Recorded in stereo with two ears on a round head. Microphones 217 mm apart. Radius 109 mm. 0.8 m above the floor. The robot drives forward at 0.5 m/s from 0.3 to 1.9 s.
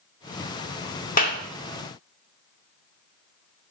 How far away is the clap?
About 1.7 m.